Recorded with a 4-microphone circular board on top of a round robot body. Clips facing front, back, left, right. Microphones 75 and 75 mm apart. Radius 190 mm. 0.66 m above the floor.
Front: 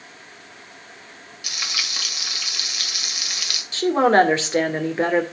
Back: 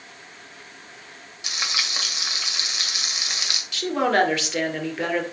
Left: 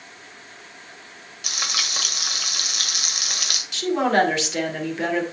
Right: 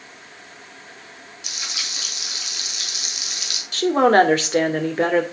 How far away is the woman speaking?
About 2.5 m.